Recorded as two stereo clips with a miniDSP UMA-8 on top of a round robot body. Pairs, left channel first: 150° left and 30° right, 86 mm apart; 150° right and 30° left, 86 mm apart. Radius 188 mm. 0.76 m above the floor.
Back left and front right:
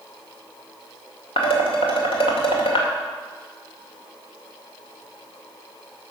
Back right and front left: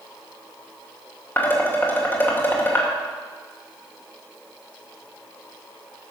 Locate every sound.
1.4 s dishes clattering: 145° left, 2.5 m